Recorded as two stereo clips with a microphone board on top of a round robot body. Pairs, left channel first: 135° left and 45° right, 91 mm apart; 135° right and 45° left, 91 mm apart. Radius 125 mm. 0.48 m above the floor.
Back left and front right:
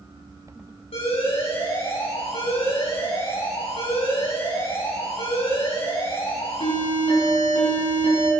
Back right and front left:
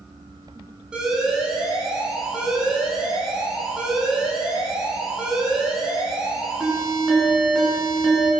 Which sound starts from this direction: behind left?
An alarm, at 0.9 s.